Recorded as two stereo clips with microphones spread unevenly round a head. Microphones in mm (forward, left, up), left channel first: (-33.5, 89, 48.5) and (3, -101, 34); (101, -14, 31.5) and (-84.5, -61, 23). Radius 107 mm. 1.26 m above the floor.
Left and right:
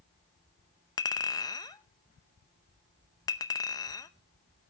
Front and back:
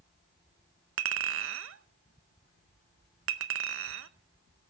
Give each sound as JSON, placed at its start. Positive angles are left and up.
{"t": 1.0, "sound": "a clink", "azimuth_deg": 170, "distance_m": 0.6}